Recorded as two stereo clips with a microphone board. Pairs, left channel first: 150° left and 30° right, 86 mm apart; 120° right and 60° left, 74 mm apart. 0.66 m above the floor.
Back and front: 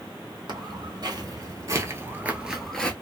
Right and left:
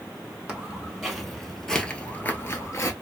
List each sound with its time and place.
0.5 s footsteps: 20° right, 1.3 m; by 2.9 s 135° right, 0.8 m